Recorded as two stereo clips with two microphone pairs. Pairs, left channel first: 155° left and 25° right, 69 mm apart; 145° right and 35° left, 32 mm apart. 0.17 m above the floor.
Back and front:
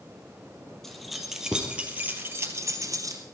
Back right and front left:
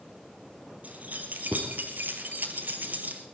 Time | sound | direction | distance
0.8 | keys jangling | 70° left | 3 m